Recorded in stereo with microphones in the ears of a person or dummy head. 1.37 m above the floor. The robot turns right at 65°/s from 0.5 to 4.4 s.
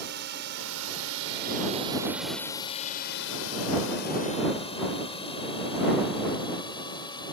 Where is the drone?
45° right (ahead or behind); by 7.3 s 35° left (ahead or behind).